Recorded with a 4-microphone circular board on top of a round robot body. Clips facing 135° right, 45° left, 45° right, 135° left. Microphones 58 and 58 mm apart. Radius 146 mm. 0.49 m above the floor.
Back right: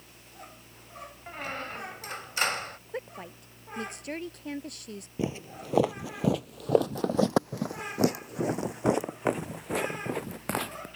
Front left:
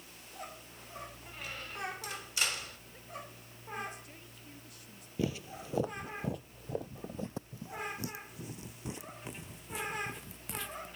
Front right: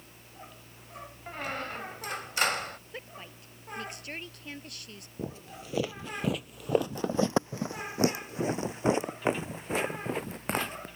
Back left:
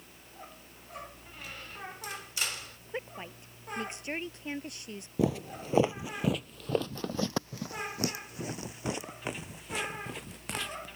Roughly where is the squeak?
Right.